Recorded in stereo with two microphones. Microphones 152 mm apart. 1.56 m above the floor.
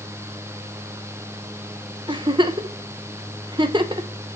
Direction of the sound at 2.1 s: 30° right (ahead or behind).